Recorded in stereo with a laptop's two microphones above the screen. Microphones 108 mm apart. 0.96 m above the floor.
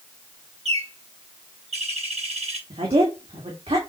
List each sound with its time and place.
0.7 s a bird: 75° right (ahead or behind), 1.5 m
2.7 s a woman speaking: 65° right (ahead or behind), 2 m